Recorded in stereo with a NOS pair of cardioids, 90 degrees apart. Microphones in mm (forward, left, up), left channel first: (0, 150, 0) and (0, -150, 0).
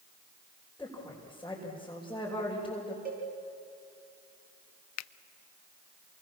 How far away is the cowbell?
About 9 m.